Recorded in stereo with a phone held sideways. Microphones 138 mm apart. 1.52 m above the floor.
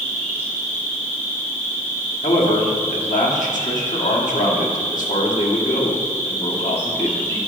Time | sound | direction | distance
0.0 | an insect | 15° left (ahead or behind) | 2.5 m
2.2 | a man speaking | 70° left (ahead or behind) | 1.4 m